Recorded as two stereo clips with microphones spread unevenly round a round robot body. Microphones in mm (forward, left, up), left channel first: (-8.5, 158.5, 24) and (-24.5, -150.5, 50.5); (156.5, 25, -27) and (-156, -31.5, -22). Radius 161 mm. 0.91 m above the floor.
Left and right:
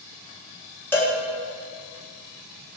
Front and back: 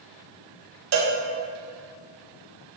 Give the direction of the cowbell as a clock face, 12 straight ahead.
6 o'clock.